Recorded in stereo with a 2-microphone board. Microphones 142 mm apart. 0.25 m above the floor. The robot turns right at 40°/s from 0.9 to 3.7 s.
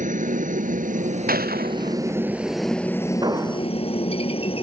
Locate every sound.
0.0 s a helicopter: 60° right (ahead or behind); by 4.6 s 35° left (ahead or behind)
1.3 s a gunshot: 75° right (ahead or behind)
3.2 s an explosion: 30° right (ahead or behind); by 3.7 s 10° right (ahead or behind)